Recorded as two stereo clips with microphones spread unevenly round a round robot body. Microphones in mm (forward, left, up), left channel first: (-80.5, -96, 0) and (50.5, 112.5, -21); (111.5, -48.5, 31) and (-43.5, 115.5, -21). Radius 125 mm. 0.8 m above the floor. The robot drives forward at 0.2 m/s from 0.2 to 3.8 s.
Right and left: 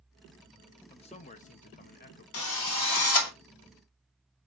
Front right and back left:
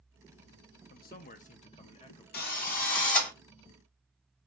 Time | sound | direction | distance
0.9 | a man speaking | 70° right | 0.6 m
2.3 | a drill | 100° right | 1.2 m